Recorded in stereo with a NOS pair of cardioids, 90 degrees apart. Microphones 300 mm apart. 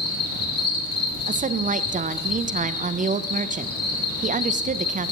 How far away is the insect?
About 3.5 m.